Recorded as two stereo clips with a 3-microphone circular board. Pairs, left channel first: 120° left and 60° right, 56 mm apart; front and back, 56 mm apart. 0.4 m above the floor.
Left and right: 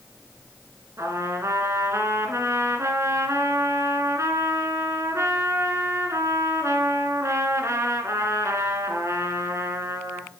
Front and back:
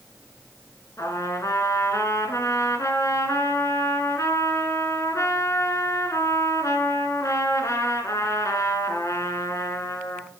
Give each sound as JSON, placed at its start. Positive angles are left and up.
{"t": 1.0, "sound": "a trumpet", "azimuth_deg": -25, "distance_m": 1.4}